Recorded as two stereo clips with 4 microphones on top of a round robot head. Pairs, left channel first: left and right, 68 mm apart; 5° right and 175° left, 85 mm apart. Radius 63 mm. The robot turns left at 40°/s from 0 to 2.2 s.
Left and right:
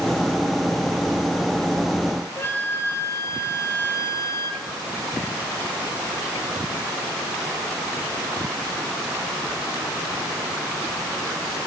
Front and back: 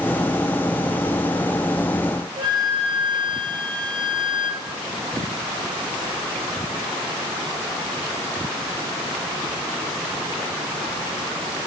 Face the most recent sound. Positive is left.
turn(degrees=145)